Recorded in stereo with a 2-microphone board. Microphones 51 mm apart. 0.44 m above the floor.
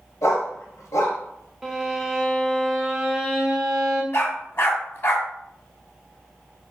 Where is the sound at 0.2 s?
80° left, 0.7 m.